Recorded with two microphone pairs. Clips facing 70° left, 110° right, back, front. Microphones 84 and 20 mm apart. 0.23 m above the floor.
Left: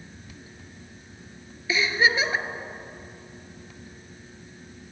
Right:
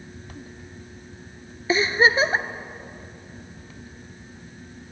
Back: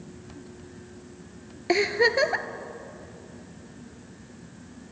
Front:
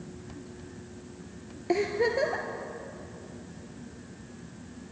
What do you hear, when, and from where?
1.7 s a giggle: 155° right, 0.5 m